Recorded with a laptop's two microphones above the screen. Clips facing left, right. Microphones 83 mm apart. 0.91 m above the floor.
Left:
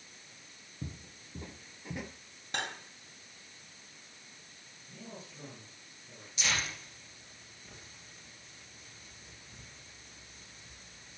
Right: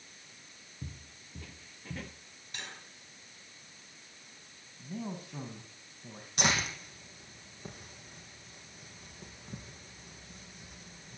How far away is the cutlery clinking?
About 3 m.